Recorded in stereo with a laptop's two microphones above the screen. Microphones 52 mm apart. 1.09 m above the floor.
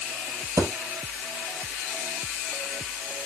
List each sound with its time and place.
0.6 s a thud: 75° right (ahead or behind), 4 m